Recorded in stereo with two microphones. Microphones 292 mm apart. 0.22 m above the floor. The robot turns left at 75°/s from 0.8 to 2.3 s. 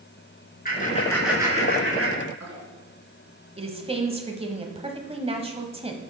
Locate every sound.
0.7 s laughter: 30° left (ahead or behind), 3.5 m; by 2.6 s 65° right (ahead or behind), 3.5 m
3.6 s a woman speaking: 20° right (ahead or behind), 1.0 m